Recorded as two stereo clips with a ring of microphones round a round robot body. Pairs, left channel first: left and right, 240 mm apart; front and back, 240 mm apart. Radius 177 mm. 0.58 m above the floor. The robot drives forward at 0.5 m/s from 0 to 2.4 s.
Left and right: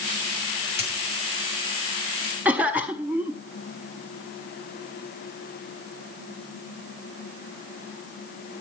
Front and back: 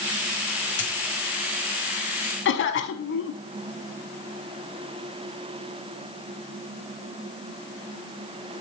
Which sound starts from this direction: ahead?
A cough, at 2.5 s.